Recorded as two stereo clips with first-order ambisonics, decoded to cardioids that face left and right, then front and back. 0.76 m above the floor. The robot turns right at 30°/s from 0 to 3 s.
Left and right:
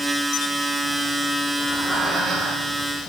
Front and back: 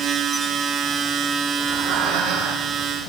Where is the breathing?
175° left, 7 m; by 2.8 s 150° right, 7 m.